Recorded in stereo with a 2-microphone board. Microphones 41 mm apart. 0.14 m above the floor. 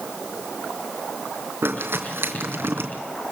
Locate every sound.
1.6 s crumpling: 70° right (ahead or behind), 3 m